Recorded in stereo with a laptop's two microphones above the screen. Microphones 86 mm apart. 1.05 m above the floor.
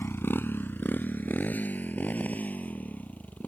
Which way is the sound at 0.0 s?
30° left (ahead or behind).